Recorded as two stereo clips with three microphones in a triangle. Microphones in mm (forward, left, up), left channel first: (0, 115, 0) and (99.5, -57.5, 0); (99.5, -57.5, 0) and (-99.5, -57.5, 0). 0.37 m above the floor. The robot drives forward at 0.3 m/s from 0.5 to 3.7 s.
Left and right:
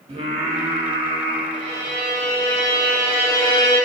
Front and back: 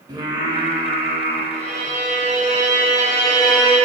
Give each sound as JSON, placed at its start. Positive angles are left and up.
{"t": 0.1, "sound": "singing", "azimuth_deg": -110, "distance_m": 0.7}
{"t": 1.5, "sound": "a violin", "azimuth_deg": 150, "distance_m": 1.3}